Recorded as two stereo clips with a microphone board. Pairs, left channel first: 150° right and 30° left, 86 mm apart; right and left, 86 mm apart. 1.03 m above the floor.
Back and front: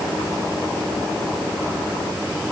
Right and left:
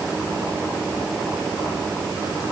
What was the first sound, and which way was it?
Only background noise.